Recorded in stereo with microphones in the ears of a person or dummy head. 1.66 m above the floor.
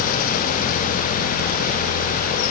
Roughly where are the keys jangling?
I don't hear keys jangling.